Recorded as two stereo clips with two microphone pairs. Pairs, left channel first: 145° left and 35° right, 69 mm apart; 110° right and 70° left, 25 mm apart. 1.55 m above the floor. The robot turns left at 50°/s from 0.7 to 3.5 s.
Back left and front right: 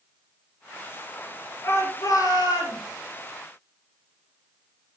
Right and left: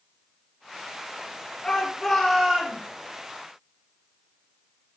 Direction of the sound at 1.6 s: 165° right.